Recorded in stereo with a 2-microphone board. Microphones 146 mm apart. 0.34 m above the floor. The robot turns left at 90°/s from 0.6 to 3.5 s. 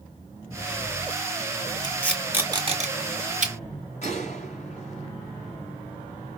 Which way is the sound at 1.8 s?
30° left (ahead or behind).